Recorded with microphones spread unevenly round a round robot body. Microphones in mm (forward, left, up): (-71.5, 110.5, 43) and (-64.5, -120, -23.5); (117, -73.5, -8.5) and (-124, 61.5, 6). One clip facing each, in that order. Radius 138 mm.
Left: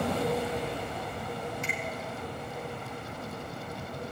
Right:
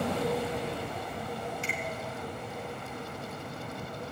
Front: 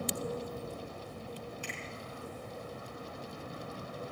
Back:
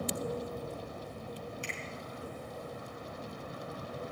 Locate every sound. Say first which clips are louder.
1.6 s a finger snap: even, back 1 dB; 140° right, 3.5 m